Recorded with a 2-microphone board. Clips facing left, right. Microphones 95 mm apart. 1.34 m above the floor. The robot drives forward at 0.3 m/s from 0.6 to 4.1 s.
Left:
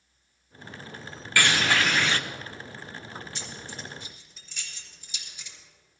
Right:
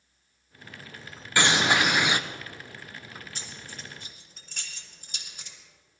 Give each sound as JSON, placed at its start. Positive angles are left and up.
{"t": 1.4, "sound": "a bird", "side_deg": -20, "distance_m": 0.5}
{"t": 3.4, "sound": "keys jangling", "side_deg": -45, "distance_m": 4.5}